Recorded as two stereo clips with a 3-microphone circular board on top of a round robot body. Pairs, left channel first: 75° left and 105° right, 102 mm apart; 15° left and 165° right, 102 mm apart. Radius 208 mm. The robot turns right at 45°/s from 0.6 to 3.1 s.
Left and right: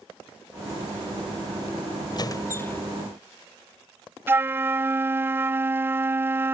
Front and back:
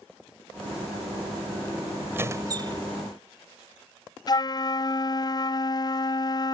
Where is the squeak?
125° left; by 2.8 s 155° left.